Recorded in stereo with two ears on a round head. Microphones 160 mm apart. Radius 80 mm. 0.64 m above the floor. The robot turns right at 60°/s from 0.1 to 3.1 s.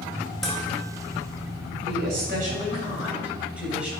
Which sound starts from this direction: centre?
Dishes clattering, at 0.4 s.